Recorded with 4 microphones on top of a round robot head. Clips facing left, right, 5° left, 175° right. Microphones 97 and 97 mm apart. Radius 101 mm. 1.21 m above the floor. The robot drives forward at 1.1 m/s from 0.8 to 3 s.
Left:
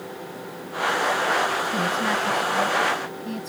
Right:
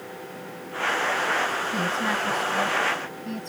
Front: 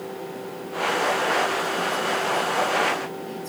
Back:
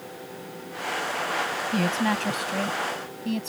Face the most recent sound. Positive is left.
turn(degrees=175)